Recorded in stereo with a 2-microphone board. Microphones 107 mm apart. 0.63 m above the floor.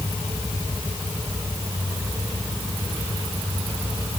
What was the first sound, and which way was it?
Only background noise.